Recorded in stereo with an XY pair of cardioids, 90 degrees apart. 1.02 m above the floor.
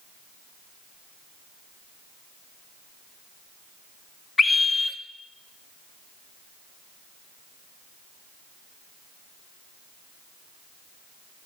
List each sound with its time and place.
4.4 s a scream: 35° left, 1.7 m